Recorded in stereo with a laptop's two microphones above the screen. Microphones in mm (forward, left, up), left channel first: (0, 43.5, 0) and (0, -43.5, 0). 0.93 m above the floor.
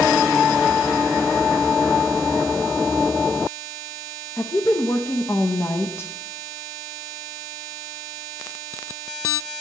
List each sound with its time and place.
4.4 s a woman speaking: 30° left (ahead or behind), 0.6 m